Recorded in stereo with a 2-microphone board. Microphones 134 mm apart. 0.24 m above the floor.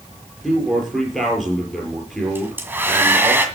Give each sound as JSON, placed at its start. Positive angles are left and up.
{"t": 0.4, "sound": "a man speaking", "side_deg": 0, "distance_m": 6.0}
{"t": 2.4, "sound": "a hair dryer", "side_deg": -15, "distance_m": 2.0}